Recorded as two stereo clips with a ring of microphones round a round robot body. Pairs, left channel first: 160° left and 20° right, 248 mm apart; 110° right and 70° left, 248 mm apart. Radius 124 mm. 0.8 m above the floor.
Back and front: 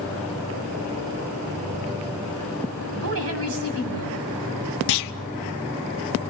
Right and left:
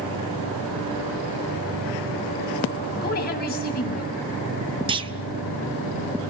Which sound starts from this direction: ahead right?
A woman speaking, at 3.0 s.